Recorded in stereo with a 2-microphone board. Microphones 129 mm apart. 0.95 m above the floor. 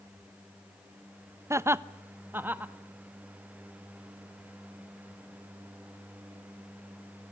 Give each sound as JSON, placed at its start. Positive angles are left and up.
{"t": 1.5, "sound": "laughter", "side_deg": -20, "distance_m": 0.5}